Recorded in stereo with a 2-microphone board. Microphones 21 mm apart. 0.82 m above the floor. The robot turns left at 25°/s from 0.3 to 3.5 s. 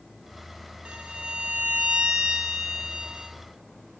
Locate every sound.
0.8 s a violin: 75° right, 2.5 m; by 3.3 s 135° right, 2.5 m